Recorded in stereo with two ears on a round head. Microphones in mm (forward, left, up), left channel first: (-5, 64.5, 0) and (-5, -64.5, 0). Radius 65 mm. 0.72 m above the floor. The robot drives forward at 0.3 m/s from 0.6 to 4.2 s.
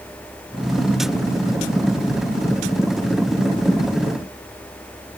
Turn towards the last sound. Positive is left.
No sound to turn to.